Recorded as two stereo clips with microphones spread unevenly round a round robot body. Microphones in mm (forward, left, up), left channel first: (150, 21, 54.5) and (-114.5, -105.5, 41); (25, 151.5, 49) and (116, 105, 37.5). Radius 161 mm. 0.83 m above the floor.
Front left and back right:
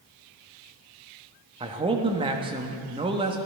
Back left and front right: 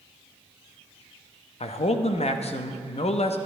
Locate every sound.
1.6 s a man speaking: 135° left, 0.9 m